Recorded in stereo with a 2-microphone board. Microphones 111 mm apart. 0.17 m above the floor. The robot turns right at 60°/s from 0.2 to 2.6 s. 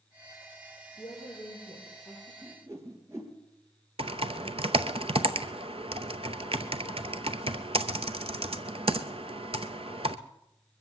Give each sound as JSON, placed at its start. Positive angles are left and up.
{"t": 1.0, "sound": "a woman speaking", "azimuth_deg": 85, "distance_m": 6.5}
{"t": 2.4, "sound": "a whoosh", "side_deg": -20, "distance_m": 3.0}
{"t": 4.0, "sound": "typing on a keyboard", "side_deg": -60, "distance_m": 0.7}